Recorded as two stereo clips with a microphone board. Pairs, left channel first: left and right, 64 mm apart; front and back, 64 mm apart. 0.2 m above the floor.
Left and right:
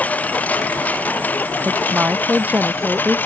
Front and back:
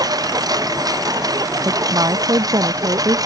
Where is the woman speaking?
155° right.